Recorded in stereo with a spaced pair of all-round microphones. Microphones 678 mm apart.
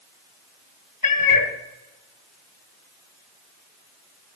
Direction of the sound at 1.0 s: 30° left (ahead or behind).